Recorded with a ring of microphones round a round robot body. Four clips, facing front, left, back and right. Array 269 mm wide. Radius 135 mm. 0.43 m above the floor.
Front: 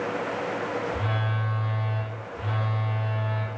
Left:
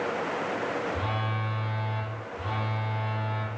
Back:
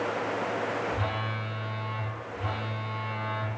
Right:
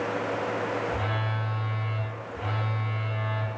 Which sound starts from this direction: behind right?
A phone buzzing, at 0.9 s.